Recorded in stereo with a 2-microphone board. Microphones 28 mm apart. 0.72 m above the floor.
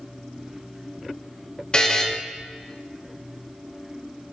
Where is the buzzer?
30° left (ahead or behind), 1.4 m.